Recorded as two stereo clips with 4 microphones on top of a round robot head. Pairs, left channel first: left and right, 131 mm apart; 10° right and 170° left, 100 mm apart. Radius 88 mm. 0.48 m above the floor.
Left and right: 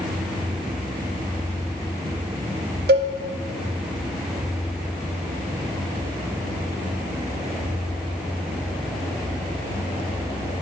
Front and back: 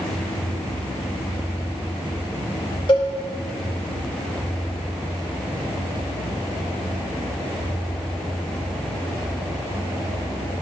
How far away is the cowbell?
About 0.5 m.